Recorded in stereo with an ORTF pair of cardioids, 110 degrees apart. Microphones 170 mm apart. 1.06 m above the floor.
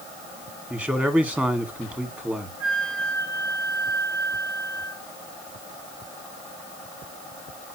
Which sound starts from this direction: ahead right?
A flute, at 2.6 s.